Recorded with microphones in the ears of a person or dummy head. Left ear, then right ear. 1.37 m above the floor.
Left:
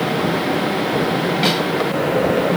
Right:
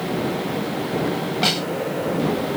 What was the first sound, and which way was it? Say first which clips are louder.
A snare drum: left 1 dB; 10° right (ahead or behind).